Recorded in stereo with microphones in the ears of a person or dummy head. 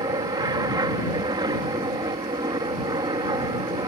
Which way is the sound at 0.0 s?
20° right (ahead or behind).